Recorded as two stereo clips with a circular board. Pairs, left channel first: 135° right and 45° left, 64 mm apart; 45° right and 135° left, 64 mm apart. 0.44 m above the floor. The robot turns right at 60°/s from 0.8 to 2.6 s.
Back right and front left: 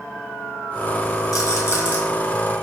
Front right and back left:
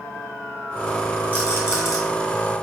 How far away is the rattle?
About 1.5 m.